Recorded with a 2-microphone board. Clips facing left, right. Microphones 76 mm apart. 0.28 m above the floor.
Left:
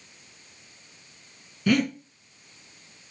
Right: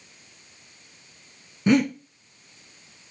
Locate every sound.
1.7 s breathing: 25° right (ahead or behind), 1.0 m